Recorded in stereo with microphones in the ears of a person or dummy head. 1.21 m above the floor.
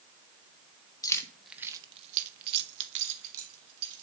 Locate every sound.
1.0 s keys jangling: 15° left (ahead or behind), 0.9 m; by 4.0 s 80° right, 1.9 m